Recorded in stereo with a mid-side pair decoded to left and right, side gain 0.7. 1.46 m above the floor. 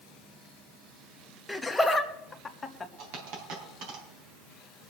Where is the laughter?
5° left, 1.6 m; by 2.9 s 15° left, 2.5 m.